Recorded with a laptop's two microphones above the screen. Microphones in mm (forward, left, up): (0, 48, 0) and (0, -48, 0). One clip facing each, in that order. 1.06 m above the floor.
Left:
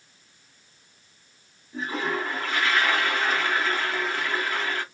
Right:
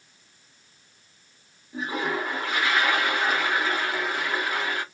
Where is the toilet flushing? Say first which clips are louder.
Even; 15° right (ahead or behind), 0.6 m.